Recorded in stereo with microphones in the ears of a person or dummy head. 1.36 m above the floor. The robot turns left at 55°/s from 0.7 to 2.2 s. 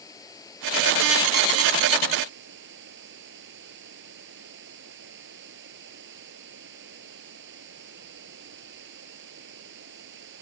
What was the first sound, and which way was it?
Running water, 20° left.